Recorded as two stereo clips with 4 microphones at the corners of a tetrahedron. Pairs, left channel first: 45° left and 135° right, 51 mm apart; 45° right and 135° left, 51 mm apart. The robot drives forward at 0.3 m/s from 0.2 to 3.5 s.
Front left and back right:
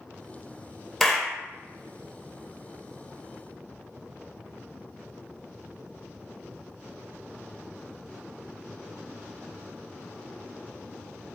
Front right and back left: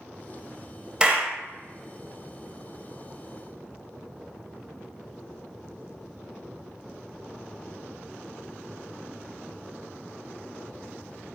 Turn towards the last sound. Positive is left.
turn(degrees=165)